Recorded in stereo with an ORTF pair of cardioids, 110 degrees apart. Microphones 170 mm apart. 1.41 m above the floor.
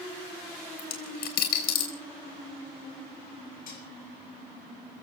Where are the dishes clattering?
55° left, 8 m.